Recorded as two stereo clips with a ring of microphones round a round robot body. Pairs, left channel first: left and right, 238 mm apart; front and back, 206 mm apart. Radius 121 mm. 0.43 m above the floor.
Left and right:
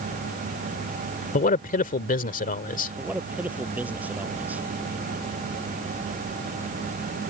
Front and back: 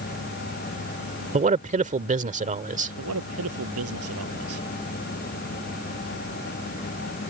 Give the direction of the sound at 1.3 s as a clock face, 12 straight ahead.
7 o'clock.